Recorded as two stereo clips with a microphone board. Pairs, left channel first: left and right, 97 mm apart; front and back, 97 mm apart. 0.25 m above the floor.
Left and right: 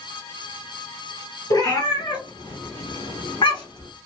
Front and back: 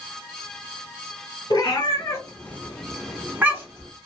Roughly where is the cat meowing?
Ahead left.